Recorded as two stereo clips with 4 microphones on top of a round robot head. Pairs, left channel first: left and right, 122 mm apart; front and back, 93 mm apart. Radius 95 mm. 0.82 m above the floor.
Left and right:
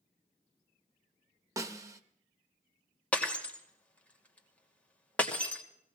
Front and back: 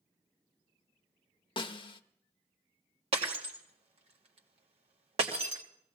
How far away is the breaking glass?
About 1.9 m.